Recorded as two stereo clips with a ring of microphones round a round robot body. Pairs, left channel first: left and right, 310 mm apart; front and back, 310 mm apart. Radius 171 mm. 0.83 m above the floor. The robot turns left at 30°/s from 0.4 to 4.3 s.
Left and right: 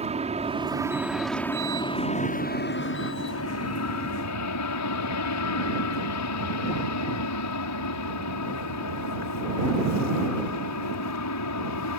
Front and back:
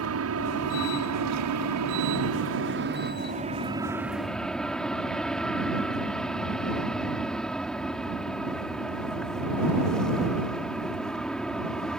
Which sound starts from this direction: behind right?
An aircraft, at 0.0 s.